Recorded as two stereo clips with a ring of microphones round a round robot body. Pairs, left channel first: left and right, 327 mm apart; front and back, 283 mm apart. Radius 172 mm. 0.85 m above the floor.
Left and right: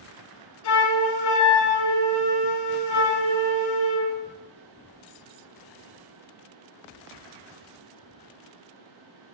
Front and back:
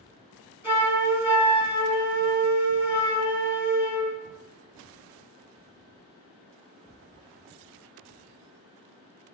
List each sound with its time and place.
0.6 s a flute: 100° left, 1.0 m